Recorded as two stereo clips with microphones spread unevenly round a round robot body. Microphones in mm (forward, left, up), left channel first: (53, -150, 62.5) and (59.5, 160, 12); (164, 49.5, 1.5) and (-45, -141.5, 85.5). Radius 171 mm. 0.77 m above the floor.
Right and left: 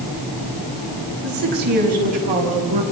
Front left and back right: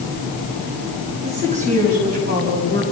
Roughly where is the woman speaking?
Behind left.